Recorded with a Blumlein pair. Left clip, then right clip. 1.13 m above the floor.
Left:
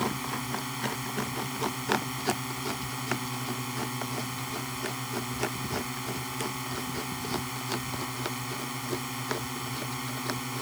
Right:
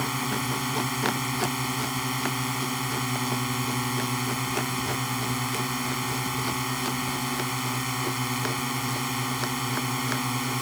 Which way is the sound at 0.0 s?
20° right.